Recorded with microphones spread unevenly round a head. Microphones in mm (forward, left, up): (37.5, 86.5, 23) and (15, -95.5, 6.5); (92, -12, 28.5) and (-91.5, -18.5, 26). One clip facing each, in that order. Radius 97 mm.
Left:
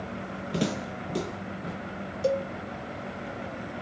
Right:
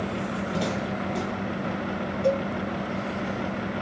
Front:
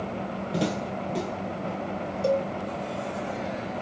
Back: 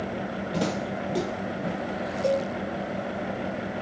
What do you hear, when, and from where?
0.5 s footsteps: 80° left, 2.5 m; by 1.8 s 115° left, 2.5 m
2.2 s a cowbell: 75° left, 1.9 m